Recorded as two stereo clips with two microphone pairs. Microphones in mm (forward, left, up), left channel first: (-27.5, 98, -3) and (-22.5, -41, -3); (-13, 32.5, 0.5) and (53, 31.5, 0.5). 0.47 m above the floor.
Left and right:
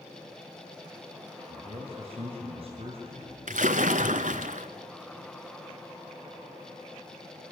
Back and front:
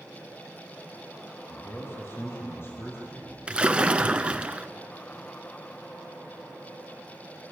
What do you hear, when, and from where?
1.5 s a man speaking: 130° right, 3.5 m
3.5 s a splash: 70° right, 1.0 m